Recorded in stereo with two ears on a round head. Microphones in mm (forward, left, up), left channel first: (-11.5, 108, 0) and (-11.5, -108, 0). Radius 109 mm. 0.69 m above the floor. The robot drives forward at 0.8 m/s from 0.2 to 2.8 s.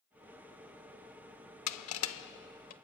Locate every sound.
1.7 s crushing: 80° left, 0.7 m; by 2.7 s 35° left (ahead or behind), 1.2 m